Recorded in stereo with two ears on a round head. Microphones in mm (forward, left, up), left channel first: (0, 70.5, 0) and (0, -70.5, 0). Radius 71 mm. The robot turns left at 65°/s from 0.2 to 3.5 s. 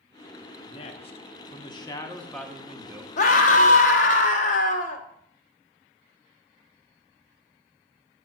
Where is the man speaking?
120° left, 0.8 m; by 3.1 s 35° right, 0.8 m.